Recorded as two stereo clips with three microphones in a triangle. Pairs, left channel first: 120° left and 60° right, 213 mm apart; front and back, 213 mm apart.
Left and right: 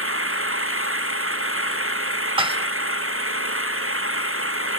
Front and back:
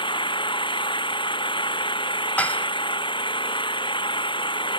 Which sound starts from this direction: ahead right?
An engine running, at 0.0 s.